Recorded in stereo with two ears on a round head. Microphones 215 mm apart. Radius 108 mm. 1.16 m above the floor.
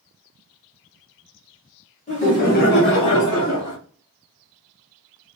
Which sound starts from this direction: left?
Laughter, at 2.1 s.